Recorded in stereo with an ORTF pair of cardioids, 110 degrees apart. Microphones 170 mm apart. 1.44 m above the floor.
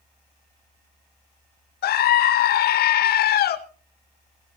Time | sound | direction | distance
1.8 | a scream | 60° left | 2 m